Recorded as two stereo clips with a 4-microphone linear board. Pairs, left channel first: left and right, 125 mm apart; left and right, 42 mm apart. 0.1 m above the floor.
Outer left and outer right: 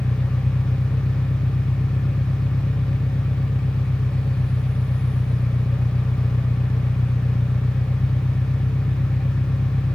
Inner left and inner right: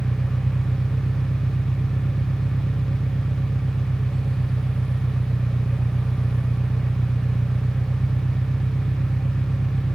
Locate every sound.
0.0 s an engine running: 30° left (ahead or behind)